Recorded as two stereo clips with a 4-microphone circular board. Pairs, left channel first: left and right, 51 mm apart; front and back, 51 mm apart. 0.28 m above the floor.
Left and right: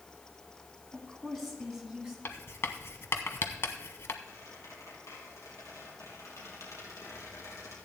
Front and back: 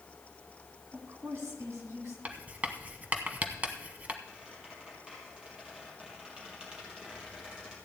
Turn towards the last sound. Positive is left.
turn(degrees=105)